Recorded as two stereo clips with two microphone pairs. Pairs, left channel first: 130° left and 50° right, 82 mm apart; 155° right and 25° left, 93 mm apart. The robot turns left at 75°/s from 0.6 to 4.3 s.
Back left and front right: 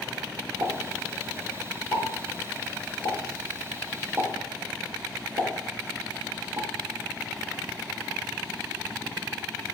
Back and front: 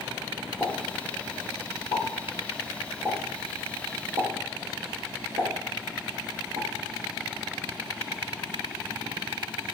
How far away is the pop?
About 5.5 m.